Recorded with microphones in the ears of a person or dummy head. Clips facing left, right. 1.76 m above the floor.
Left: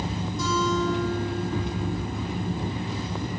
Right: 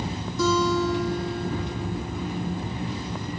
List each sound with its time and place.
0.4 s a guitar: 55° right (ahead or behind), 3.5 m